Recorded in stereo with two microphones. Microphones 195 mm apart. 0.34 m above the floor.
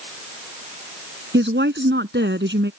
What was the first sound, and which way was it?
A woman speaking, 70° right (ahead or behind).